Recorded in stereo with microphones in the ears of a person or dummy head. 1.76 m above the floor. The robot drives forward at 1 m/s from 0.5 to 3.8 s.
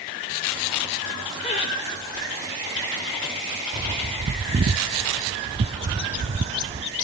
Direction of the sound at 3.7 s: 25° right (ahead or behind).